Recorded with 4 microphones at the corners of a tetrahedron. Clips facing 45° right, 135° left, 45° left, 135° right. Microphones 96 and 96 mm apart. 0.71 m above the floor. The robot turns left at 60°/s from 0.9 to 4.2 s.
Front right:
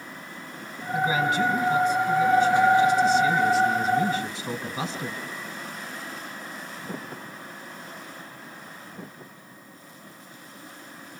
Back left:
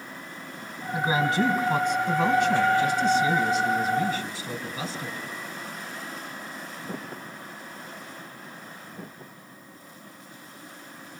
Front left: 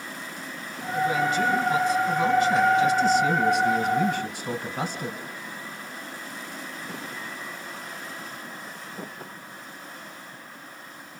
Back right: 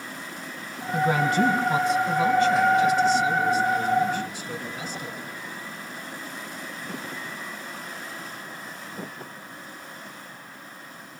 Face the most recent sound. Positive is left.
turn(degrees=25)